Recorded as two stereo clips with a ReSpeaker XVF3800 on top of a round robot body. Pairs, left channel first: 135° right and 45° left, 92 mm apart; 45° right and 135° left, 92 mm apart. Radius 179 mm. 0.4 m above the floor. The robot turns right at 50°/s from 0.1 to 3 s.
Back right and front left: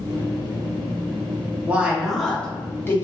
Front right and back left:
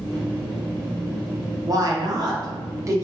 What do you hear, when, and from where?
1.6 s a woman speaking: 110° left, 0.9 m; by 3.0 s 175° left, 0.9 m